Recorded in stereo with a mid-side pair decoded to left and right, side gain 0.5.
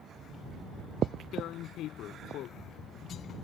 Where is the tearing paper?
70° left.